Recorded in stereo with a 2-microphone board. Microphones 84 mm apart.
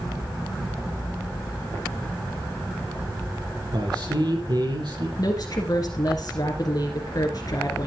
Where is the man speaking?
60° right (ahead or behind), 7 m.